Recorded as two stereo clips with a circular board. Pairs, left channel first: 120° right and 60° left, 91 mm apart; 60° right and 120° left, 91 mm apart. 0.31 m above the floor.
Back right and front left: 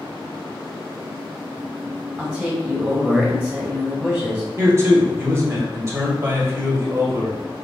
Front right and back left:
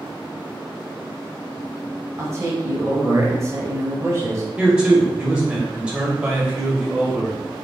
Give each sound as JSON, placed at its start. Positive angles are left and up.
{"t": 2.2, "sound": "a man speaking", "azimuth_deg": 120, "distance_m": 1.5}
{"t": 4.6, "sound": "a man speaking", "azimuth_deg": 55, "distance_m": 1.2}